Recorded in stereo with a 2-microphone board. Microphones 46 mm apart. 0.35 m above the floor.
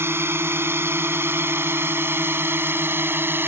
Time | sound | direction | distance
0.0 | a drone | 60° right (ahead or behind) | ?